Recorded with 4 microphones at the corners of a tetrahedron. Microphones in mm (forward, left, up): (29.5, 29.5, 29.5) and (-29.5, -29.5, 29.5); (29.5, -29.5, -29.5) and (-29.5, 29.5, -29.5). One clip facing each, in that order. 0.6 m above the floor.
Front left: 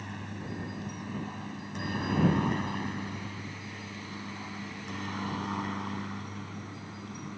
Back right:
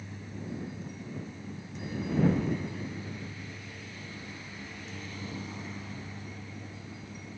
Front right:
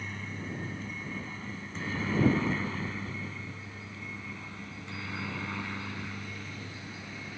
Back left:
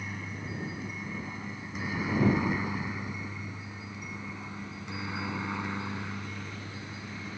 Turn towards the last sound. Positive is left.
turn(degrees=70)